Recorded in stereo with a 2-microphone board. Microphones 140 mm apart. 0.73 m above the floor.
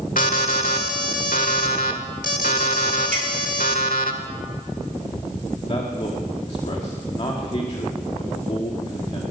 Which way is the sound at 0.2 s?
80° left.